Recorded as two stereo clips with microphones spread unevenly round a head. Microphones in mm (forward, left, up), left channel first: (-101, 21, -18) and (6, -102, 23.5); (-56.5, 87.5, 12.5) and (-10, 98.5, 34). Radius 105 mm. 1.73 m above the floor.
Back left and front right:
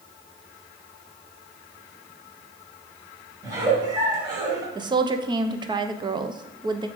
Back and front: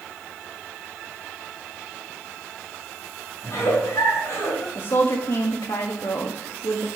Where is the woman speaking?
110° right, 0.9 m.